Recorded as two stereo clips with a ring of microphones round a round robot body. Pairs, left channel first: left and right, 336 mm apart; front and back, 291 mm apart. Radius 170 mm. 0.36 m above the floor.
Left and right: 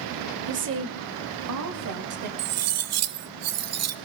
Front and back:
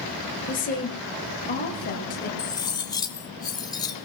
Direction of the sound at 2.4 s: 75° right.